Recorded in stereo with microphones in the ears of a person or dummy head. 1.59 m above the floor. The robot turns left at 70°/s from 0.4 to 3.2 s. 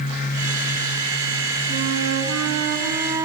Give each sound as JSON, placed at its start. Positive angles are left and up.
{"t": 1.7, "sound": "a flute", "azimuth_deg": -50, "distance_m": 3.5}